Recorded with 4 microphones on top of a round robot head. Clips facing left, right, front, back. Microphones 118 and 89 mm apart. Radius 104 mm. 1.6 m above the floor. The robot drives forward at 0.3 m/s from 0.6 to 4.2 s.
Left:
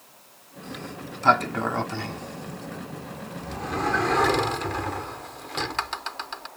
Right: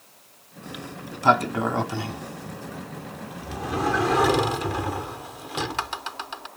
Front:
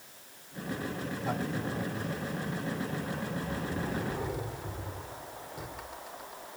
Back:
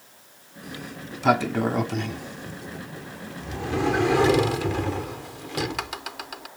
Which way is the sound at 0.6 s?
170° right.